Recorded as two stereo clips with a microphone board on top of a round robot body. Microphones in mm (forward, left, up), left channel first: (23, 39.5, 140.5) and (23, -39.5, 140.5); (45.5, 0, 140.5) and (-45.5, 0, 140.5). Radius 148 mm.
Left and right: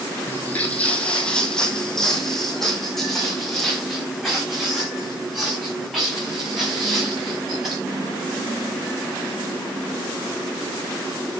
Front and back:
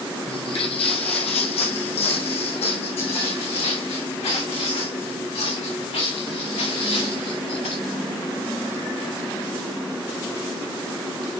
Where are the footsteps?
25° left, 1.1 m; by 7.8 s 5° right, 5.5 m.